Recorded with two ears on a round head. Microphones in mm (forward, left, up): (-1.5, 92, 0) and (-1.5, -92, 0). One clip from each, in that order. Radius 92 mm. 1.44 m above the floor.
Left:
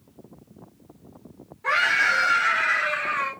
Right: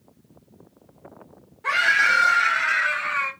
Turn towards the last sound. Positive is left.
turn(degrees=-70)  # may be behind; listen again after turning